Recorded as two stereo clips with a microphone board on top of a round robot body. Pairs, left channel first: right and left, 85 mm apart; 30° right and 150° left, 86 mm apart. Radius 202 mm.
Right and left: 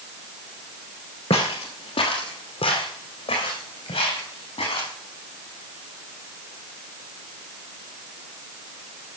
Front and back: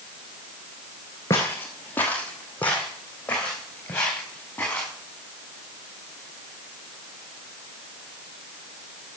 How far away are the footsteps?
About 0.5 m.